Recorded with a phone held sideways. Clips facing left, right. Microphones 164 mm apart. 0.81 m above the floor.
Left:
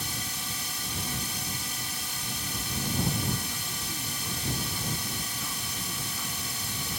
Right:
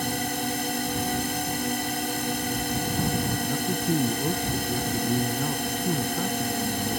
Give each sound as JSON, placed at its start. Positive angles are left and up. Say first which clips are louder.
{"t": 0.0, "sound": "a drone", "louder": "right 12 dB", "side_deg": -60}
{"t": 3.4, "sound": "a man speaking", "louder": "right 14 dB", "side_deg": -55}